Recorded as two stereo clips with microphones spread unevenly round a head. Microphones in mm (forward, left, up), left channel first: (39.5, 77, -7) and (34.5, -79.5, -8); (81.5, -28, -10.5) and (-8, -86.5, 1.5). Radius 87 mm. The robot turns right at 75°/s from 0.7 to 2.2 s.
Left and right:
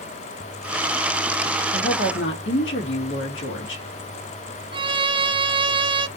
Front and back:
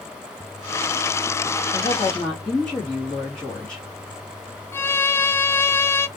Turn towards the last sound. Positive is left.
turn(degrees=-35)